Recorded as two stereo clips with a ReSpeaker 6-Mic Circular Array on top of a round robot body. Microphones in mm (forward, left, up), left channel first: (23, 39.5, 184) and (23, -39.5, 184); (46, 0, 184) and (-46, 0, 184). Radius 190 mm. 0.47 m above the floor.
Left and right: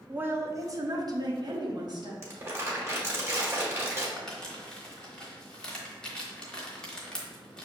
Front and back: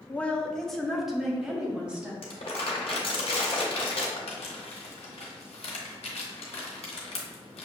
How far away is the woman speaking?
About 0.8 m.